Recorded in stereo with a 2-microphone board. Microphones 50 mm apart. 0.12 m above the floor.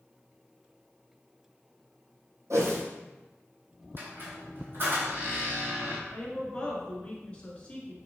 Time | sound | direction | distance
2.5 | a whoosh | 75° right (ahead or behind) | 1.1 m
4.0 | a squeak | 45° right (ahead or behind) | 1.7 m
6.1 | a woman speaking | 20° left (ahead or behind) | 1.2 m